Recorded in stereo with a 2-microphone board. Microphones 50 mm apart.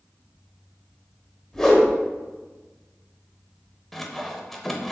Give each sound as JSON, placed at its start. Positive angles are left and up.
{"t": 1.5, "sound": "a whoosh", "side_deg": 10, "distance_m": 1.1}
{"t": 3.9, "sound": "sawing", "side_deg": 5, "distance_m": 0.5}